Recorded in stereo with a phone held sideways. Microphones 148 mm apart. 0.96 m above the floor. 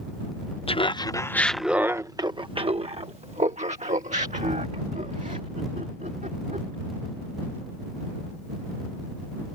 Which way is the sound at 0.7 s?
40° left (ahead or behind).